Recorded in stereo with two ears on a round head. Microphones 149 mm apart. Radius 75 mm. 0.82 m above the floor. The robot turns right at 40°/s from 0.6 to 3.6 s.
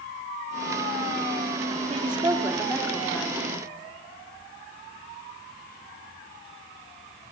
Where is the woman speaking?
35° right, 1.6 m; by 3.7 s 30° left, 1.6 m.